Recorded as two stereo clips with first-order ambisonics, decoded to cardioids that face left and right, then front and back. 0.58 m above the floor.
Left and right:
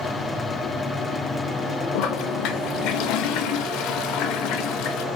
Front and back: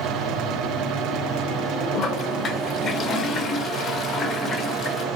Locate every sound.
1.9 s a toilet flushing: 60° left, 0.5 m